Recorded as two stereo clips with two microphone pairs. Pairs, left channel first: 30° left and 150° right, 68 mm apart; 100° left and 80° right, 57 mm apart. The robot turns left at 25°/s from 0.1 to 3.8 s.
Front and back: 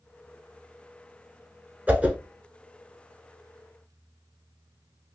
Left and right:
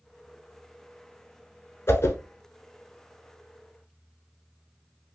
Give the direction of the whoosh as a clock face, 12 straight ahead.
7 o'clock.